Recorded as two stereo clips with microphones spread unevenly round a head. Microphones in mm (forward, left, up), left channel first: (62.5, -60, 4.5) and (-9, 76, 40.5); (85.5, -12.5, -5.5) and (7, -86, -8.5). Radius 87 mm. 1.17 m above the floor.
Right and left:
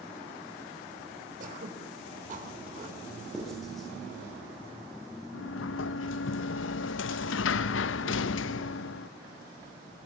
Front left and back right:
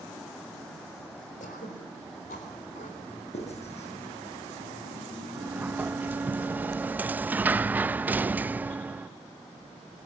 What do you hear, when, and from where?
1.4 s throat clearing: 80° left, 4 m
3.3 s writing: 25° left, 8 m
5.3 s a sliding door: 60° right, 0.6 m